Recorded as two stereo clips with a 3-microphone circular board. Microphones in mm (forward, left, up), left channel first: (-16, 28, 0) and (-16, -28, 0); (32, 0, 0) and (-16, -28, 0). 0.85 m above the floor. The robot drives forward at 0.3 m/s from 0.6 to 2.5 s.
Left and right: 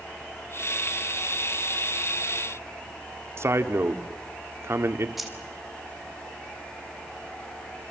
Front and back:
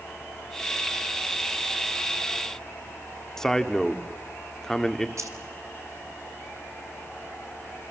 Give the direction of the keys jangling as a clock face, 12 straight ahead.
6 o'clock.